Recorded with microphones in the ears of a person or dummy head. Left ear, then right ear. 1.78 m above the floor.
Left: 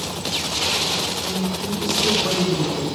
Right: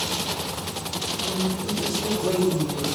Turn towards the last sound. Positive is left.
turn(degrees=75)  # may be behind; listen again after turning